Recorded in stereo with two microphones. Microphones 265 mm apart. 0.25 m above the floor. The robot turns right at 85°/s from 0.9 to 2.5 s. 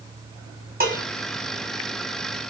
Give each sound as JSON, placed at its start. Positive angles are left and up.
{"t": 0.8, "sound": "dishes clattering", "side_deg": -35, "distance_m": 1.1}